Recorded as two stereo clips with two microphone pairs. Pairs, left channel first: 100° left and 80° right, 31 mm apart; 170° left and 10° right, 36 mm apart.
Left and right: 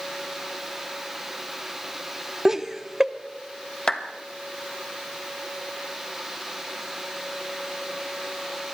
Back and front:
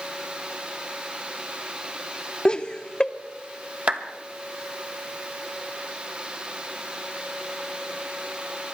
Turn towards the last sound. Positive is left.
turn(degrees=40)